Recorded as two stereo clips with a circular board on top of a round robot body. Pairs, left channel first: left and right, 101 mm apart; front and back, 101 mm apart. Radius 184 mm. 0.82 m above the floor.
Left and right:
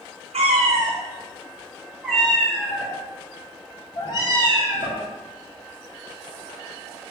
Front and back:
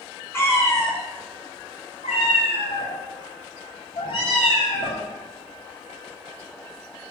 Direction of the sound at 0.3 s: 70° right.